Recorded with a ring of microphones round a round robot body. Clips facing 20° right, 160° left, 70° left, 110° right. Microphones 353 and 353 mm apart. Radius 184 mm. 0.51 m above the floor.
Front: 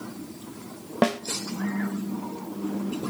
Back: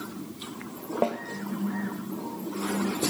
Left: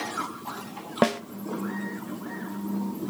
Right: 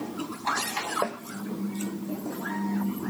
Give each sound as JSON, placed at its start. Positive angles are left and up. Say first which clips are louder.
{"t": 1.0, "sound": "a snare drum", "louder": "front 5 dB, left 9 dB", "azimuth_deg": 30, "distance_m": 0.6}